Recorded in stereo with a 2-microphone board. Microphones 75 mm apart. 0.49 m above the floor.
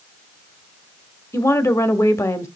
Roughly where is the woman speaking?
Left.